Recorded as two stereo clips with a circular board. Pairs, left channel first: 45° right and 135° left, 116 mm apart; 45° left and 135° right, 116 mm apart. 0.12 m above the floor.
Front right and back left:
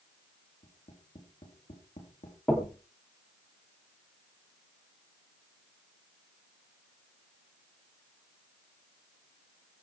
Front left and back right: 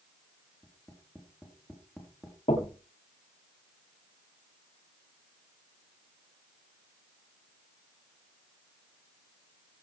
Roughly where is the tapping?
Ahead right.